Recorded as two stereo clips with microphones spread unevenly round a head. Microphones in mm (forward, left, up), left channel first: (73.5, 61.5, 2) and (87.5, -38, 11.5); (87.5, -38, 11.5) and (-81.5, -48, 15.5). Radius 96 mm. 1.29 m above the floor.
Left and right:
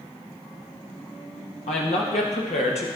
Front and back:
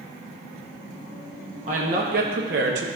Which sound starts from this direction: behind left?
A woman speaking, at 1.7 s.